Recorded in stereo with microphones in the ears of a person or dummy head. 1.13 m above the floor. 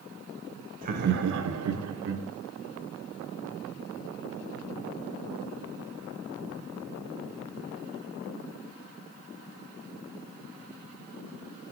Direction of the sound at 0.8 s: 45° right (ahead or behind).